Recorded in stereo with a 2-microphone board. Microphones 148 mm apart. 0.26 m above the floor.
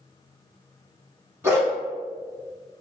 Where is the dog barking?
15° right (ahead or behind), 1.1 m.